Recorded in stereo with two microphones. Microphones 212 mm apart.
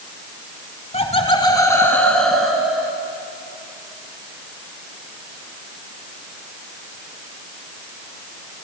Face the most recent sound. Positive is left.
turn(degrees=-5)  # may be behind; listen again after turning